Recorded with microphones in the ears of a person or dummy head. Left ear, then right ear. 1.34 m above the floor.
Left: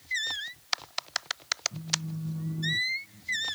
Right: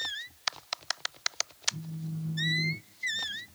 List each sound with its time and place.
1.7 s a phone buzzing: 10° left (ahead or behind), 1.8 m